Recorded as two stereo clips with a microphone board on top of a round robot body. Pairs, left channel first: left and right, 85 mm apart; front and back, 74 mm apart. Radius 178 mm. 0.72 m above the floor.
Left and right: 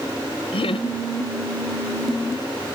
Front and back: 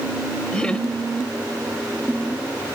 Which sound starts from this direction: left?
Laughter, at 0.5 s.